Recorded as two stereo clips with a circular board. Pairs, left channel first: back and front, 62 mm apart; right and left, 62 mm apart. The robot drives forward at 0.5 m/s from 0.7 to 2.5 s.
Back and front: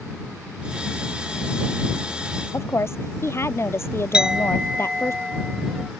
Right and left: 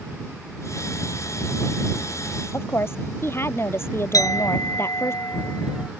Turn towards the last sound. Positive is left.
turn(degrees=-75)